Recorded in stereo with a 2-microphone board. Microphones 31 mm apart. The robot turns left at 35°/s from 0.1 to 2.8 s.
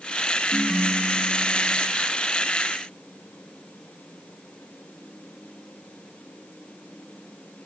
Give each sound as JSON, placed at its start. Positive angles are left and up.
{"t": 0.5, "sound": "a ringtone", "azimuth_deg": -10, "distance_m": 1.6}